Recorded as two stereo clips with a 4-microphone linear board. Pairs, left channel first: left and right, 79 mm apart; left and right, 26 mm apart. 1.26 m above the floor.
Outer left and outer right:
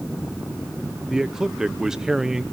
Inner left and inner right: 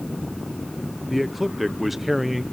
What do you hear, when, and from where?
1.1 s a man speaking: 10° right (ahead or behind), 0.7 m